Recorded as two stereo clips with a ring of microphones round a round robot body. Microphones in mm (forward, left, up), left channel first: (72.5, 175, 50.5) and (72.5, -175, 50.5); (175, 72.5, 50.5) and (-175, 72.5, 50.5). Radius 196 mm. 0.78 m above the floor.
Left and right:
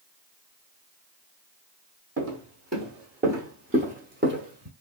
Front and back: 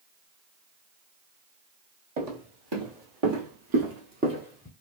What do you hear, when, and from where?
2.2 s footsteps: 160° right, 1.9 m; by 4.7 s 65° right, 0.7 m